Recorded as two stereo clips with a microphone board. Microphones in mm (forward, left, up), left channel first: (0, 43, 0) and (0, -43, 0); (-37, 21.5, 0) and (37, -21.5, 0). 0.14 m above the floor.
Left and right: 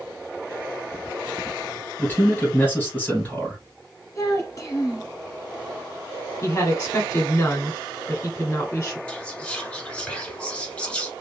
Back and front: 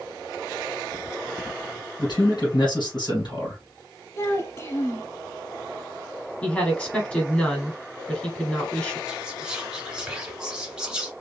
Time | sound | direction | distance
2.0 | a man speaking | 155° left | 2 m
4.2 | a child speaking | 115° left | 1.2 m
6.4 | a woman speaking | 85° left | 1.3 m
9.1 | whispering | 35° left | 1.1 m